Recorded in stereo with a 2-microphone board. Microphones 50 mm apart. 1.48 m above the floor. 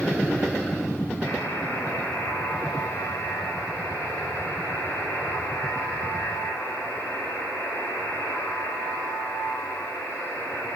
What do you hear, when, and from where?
1.2 s a buzzer: 80° left, 5.5 m